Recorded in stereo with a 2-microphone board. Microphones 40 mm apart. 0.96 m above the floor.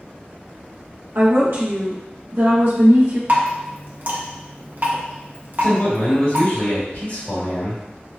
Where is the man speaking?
65° left (ahead or behind), 1.8 m.